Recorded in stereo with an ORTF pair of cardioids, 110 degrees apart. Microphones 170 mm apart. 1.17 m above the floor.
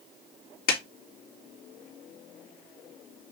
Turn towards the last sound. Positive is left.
turn(degrees=70)